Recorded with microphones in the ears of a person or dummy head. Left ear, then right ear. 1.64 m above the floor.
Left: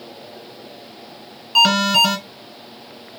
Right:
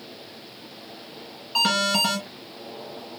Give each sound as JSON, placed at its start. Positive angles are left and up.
{"t": 1.6, "sound": "an alarm", "side_deg": 20, "distance_m": 2.5}